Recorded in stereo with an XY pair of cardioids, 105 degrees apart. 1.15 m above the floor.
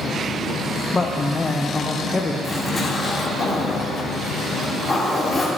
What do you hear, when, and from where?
0.9 s a man speaking: 25° left, 0.6 m
2.4 s a zipper: 35° left, 1.7 m